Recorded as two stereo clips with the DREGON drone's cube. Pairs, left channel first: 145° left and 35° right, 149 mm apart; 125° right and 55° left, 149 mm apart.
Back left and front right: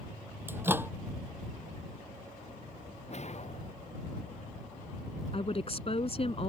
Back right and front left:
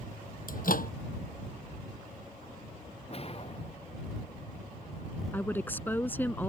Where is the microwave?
110° right.